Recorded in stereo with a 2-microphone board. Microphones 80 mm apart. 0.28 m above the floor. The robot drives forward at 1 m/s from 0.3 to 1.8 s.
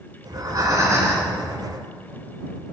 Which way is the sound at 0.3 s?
55° right (ahead or behind).